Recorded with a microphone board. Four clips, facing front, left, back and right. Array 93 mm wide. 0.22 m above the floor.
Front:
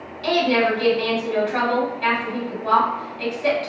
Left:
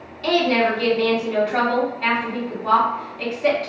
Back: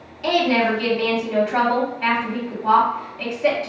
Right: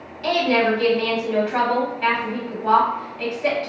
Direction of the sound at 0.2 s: 150° right.